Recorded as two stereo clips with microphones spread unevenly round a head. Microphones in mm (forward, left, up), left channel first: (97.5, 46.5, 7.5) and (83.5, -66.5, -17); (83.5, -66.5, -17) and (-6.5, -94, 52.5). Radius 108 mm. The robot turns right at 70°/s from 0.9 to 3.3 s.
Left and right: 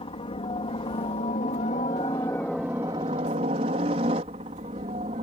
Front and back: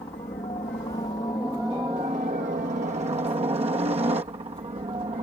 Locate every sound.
0.0 s a helicopter: 65° left; by 5.2 s 140° right